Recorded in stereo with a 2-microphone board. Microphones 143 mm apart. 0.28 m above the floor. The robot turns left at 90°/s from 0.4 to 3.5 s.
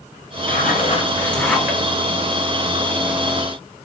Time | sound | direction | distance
0.5 | a zipper | 90° left | 1.8 m